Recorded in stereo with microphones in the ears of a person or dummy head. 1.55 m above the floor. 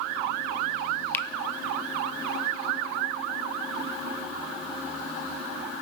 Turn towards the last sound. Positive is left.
turn(degrees=10)  # may be behind; listen again after turning